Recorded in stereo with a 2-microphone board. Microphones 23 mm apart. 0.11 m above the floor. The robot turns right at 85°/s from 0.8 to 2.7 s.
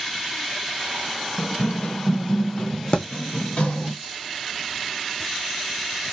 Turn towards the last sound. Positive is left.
turn(degrees=50)  # may be behind; listen again after turning